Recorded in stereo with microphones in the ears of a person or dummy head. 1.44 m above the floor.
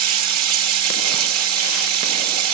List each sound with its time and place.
0.0 s running water: 85° right, 1.4 m